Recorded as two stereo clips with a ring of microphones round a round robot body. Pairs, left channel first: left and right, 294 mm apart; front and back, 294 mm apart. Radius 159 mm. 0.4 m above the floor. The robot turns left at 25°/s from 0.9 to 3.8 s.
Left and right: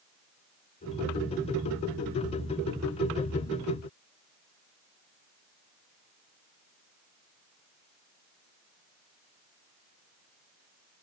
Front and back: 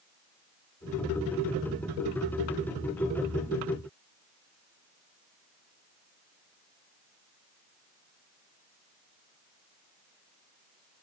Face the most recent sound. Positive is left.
No sound to turn to.